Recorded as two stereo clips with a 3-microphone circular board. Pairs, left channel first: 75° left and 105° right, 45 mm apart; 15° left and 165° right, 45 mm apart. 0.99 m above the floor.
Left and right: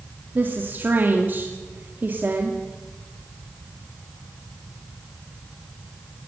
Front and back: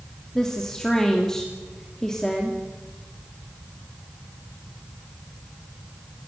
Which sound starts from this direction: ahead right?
A woman speaking, at 0.3 s.